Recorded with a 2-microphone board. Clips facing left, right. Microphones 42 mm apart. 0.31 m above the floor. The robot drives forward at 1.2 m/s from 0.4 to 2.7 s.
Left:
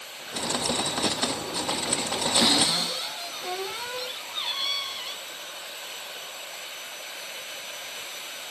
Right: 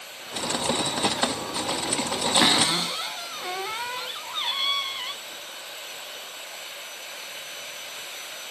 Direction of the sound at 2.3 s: 35° right (ahead or behind).